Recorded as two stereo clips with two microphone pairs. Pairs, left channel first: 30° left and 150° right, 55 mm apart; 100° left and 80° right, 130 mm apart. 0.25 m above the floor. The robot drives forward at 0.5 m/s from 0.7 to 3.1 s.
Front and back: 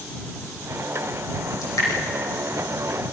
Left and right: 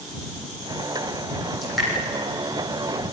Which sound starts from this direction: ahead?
Dripping, at 1.6 s.